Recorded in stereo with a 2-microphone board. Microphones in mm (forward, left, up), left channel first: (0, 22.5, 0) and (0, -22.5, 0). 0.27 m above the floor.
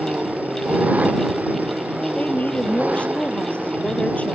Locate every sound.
0.0 s an engine running: 35° right (ahead or behind)
2.1 s a woman speaking: 30° left (ahead or behind)